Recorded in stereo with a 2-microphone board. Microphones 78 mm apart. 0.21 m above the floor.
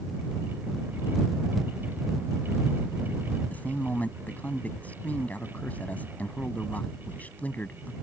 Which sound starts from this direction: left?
A man speaking, at 3.5 s.